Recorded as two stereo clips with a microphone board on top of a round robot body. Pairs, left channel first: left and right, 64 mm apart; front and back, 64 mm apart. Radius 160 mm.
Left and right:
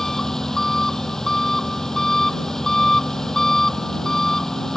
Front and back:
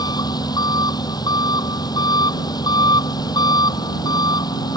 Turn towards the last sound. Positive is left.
turn(degrees=10)